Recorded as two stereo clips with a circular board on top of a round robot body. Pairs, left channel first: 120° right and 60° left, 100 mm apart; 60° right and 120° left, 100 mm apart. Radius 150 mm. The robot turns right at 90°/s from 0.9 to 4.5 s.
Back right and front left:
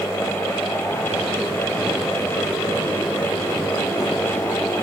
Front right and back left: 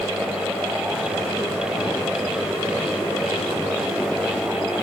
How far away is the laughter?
No laughter in this recording.